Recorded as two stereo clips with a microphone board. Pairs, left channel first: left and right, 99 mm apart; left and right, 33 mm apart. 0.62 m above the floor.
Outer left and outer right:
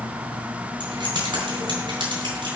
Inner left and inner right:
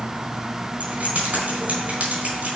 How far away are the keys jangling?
About 4 m.